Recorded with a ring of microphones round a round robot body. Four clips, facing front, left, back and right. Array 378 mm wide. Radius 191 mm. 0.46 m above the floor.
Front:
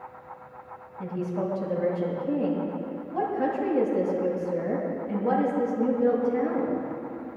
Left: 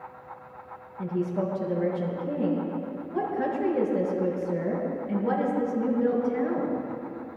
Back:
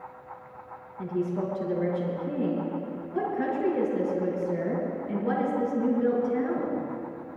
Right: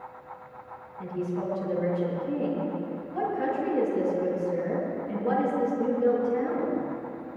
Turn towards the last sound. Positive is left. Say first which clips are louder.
# left 3 dB, back 1 dB
turn(degrees=135)